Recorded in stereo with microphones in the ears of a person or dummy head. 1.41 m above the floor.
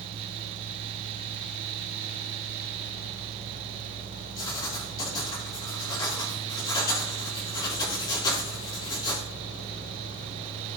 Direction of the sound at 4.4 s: 25° left (ahead or behind).